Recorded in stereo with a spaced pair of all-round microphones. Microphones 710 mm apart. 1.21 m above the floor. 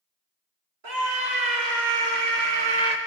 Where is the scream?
75° right (ahead or behind), 2.5 m; by 3.0 s 60° right (ahead or behind), 0.8 m.